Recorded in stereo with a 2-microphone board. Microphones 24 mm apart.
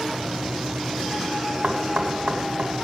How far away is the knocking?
About 2.5 m.